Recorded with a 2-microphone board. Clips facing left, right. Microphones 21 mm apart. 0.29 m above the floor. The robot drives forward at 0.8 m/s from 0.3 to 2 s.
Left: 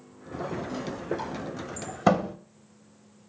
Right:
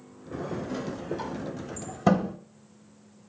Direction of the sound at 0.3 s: 10° left (ahead or behind).